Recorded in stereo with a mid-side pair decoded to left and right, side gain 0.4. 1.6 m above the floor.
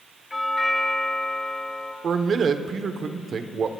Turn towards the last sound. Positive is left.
turn(degrees=-60)